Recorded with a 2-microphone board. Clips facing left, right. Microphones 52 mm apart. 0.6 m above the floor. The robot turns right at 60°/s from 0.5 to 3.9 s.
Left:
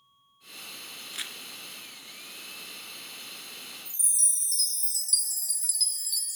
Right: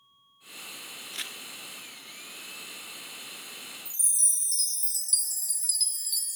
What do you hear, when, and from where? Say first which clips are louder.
1.1 s crumpling: even; 5° left (ahead or behind), 1.7 m; by 1.4 s 5° right (ahead or behind), 1.7 m
3.9 s a chime: even; 5° right (ahead or behind), 0.6 m; by 6.4 s centre (ahead or behind), 0.6 m